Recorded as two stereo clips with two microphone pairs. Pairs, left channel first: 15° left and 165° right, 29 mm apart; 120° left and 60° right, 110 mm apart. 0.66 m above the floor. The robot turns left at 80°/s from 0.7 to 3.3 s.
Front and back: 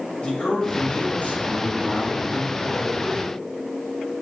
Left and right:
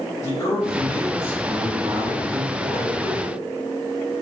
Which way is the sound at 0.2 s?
60° left.